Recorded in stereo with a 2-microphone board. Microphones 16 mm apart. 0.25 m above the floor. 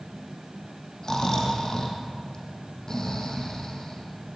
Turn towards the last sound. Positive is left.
turn(degrees=45)  # may be behind; listen again after turning